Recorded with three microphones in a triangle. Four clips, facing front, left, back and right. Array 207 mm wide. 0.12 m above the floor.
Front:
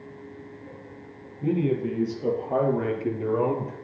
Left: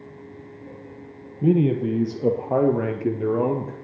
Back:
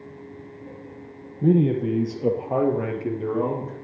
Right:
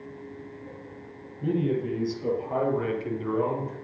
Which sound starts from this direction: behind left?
A man speaking, at 1.4 s.